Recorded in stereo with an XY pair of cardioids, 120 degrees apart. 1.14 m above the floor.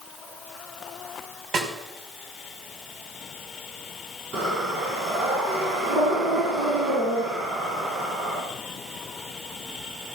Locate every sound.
1.5 s a snare drum: 60° right, 4.5 m
4.3 s breathing: 60° right, 6.5 m